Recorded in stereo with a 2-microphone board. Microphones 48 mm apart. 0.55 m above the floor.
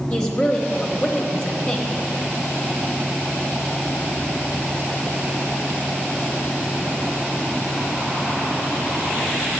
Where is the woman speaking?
15° left (ahead or behind), 1.0 m.